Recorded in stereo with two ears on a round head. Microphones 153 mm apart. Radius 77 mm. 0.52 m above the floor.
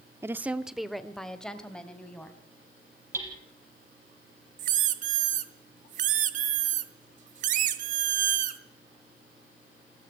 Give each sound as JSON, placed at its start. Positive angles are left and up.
{"t": 0.2, "sound": "a woman speaking", "side_deg": -15, "distance_m": 0.7}
{"t": 3.1, "sound": "hammering", "side_deg": -15, "distance_m": 5.5}
{"t": 4.6, "sound": "a squeak", "side_deg": -50, "distance_m": 1.3}